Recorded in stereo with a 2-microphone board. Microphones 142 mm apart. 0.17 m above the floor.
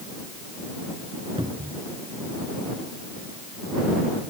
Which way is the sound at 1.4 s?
35° right (ahead or behind).